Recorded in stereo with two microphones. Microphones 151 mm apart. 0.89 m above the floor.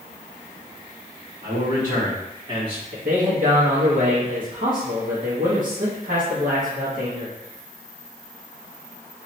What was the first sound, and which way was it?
A man speaking, 60° right (ahead or behind).